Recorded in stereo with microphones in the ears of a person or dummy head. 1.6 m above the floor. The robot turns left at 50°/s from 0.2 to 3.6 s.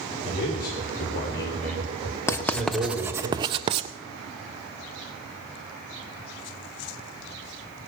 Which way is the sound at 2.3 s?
25° left (ahead or behind).